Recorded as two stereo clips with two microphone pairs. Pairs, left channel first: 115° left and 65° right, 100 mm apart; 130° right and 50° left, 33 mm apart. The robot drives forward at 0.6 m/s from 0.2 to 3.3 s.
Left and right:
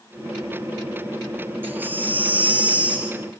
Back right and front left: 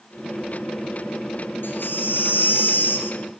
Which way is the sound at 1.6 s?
135° right.